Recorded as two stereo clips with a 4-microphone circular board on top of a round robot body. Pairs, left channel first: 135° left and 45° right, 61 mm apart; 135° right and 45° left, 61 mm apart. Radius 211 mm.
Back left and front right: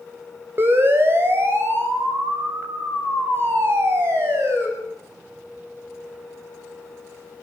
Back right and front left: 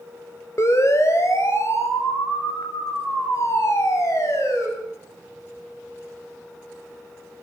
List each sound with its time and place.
0.6 s a siren: 95° right, 5 m